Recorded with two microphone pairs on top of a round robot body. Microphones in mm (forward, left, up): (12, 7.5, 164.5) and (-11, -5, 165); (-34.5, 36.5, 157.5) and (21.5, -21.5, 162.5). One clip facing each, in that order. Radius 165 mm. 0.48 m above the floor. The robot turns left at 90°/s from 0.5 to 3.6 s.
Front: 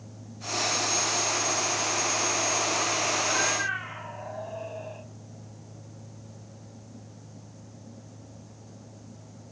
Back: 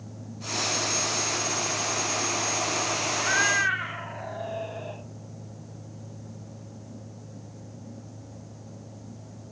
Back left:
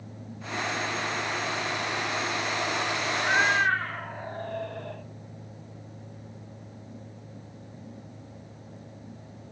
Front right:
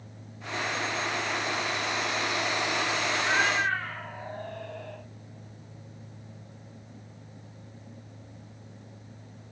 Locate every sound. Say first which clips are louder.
3.1 s a cat meowing: back 3 dB, back left 4 dB; 145° right, 3 m; by 5.0 s 175° left, 3 m